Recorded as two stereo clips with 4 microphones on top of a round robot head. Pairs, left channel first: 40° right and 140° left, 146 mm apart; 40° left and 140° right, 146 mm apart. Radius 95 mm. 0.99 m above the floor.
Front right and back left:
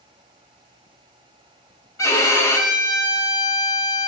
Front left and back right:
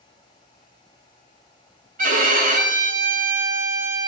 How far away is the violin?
About 1.3 m.